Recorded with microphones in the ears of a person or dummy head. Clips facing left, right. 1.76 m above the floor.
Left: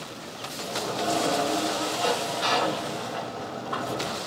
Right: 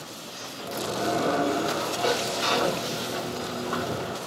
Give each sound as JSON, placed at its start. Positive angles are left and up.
{"t": 0.6, "sound": "a sliding door", "side_deg": -30, "distance_m": 1.3}